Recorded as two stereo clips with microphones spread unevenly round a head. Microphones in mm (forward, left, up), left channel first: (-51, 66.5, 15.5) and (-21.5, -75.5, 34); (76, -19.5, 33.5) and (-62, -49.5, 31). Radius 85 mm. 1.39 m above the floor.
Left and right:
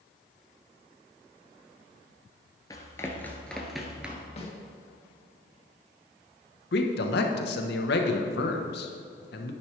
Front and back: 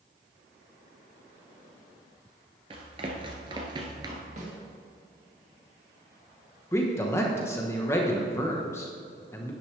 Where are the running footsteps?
165° left, 1.5 m; by 4.3 s 130° right, 1.5 m.